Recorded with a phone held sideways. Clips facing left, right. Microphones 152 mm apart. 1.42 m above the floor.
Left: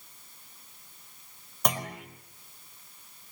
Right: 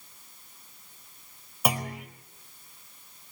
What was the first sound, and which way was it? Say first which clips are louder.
A clunk: right 2 dB; 10° right (ahead or behind).